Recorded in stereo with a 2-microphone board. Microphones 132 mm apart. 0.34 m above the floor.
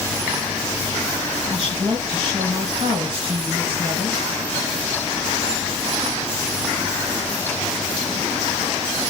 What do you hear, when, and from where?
1.5 s a woman speaking: 40° right (ahead or behind), 1.7 m